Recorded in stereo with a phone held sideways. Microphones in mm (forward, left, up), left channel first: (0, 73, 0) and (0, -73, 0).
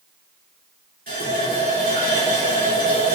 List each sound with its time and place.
1.1 s a running tap: 80° right, 3 m